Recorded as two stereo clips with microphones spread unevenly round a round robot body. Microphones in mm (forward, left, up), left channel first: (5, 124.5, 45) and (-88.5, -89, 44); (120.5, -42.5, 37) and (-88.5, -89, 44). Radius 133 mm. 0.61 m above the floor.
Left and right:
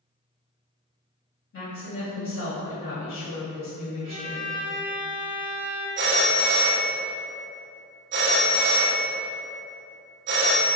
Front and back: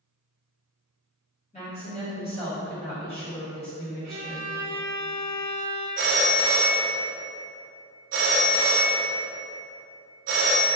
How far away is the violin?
About 0.6 m.